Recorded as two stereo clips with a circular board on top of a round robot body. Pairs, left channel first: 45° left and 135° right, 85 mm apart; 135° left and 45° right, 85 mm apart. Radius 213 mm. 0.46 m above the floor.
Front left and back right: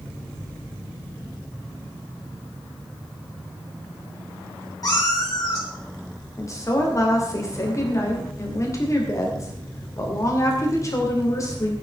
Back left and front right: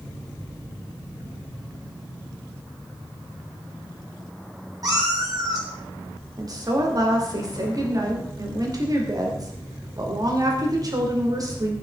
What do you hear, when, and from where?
4.8 s a cat meowing: straight ahead, 4 m
6.4 s a woman speaking: 5° right, 3 m